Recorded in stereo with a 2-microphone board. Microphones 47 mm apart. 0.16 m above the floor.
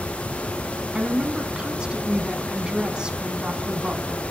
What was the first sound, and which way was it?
A woman speaking, 20° right (ahead or behind).